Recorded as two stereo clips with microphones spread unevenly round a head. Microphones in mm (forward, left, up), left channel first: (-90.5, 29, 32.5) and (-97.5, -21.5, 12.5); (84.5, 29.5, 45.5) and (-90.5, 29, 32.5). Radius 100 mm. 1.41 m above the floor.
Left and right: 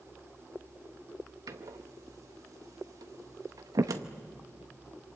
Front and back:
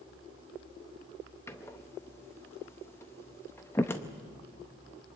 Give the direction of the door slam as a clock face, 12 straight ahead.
2 o'clock.